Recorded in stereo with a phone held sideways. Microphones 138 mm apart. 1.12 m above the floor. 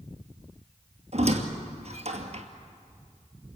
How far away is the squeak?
About 2 m.